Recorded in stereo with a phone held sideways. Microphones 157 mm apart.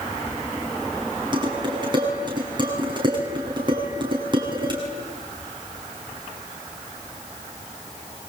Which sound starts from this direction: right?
Dishes clattering, at 1.3 s.